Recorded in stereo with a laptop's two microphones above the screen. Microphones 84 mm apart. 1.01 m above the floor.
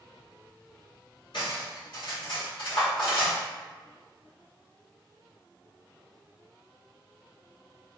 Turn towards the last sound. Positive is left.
turn(degrees=75)  # may be behind; listen again after turning